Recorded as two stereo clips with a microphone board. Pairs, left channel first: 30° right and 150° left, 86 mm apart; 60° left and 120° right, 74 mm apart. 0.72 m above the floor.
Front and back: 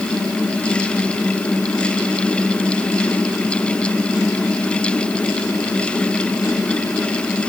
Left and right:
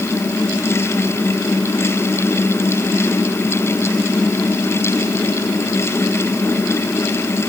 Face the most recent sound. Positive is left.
No sound to turn to.